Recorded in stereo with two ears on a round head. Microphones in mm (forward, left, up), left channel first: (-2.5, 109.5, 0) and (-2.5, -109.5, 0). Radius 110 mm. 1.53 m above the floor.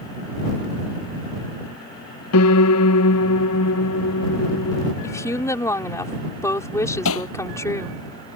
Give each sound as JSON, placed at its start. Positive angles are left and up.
{"t": 2.3, "sound": "a piano", "side_deg": 65}
{"t": 5.0, "sound": "a woman speaking", "side_deg": 10}
{"t": 7.0, "sound": "hammering", "side_deg": 60}